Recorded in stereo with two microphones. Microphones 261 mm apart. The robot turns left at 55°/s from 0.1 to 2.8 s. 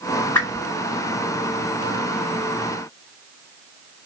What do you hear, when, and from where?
0.3 s a whoosh: 10° left (ahead or behind), 1.7 m; by 0.7 s 5° right (ahead or behind), 1.7 m